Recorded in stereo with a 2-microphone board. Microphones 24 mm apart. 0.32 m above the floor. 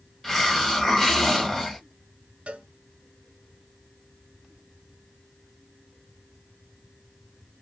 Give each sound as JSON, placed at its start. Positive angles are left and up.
{"t": 0.2, "sound": "a hiss", "side_deg": 10, "distance_m": 1.5}
{"t": 2.5, "sound": "a cowbell", "side_deg": -60, "distance_m": 0.8}